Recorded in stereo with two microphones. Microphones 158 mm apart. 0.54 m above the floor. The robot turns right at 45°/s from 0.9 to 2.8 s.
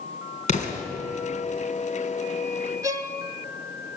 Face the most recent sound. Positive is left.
turn(degrees=-20)  # may be behind; listen again after turning